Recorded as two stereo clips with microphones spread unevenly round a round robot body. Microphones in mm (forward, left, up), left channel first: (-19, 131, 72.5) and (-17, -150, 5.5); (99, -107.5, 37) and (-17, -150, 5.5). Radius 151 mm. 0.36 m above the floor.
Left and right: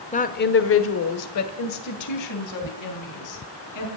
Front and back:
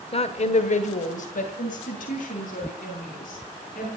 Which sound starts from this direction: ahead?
A woman speaking, at 0.1 s.